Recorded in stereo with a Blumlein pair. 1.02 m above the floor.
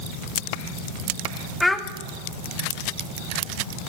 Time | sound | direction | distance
1.6 | a child speaking | 5° left | 0.7 m